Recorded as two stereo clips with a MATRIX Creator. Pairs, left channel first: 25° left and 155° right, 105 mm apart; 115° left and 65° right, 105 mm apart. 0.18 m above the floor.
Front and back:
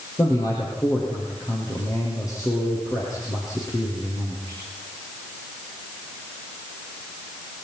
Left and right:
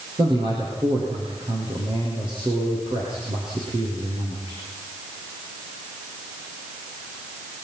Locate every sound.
0.2 s a man speaking: 35° right, 8.5 m